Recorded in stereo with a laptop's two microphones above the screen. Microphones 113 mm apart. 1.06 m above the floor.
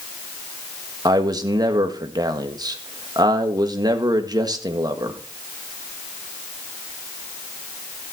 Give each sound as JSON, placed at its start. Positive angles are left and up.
{"t": 1.1, "sound": "a man speaking", "side_deg": -35, "distance_m": 1.6}